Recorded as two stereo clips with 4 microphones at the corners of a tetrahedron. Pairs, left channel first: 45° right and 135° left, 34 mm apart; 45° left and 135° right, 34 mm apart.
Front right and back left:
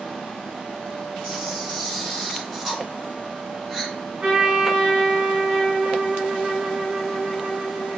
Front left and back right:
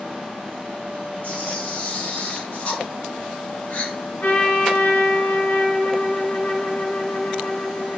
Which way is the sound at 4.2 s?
65° left.